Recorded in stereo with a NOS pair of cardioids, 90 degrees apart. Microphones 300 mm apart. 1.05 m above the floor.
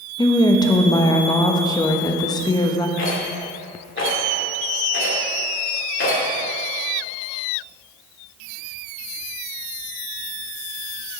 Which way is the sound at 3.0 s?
40° left.